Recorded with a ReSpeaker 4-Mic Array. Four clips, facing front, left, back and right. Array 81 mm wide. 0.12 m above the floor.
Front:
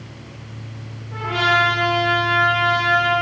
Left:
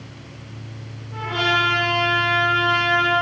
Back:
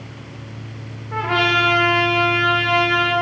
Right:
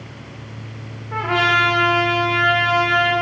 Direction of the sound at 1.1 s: 120° right.